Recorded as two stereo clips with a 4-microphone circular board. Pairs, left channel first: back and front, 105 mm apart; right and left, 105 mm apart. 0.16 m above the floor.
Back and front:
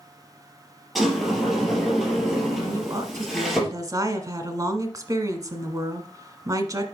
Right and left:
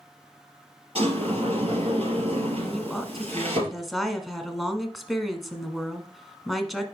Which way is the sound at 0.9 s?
90° left.